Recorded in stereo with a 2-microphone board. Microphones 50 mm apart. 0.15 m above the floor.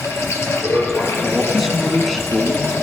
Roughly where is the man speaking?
Centre.